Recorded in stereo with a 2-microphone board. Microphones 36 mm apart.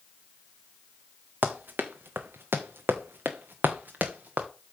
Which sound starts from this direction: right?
Running footsteps, at 1.4 s.